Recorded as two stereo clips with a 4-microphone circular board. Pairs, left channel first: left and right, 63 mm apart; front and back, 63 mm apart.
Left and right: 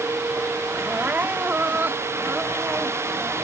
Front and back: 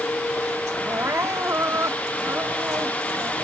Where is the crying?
145° right.